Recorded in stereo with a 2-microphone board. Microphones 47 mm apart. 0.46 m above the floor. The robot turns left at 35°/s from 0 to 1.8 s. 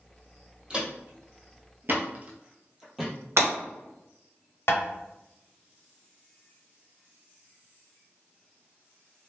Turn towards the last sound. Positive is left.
turn(degrees=65)  # may be behind; listen again after turning